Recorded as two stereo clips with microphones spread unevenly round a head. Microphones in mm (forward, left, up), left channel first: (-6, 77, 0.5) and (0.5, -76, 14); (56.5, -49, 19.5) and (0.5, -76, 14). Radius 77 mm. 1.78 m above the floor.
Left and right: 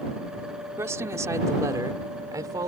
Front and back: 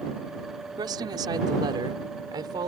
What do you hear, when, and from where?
0.8 s a woman speaking: 160° right; by 2.7 s 155° right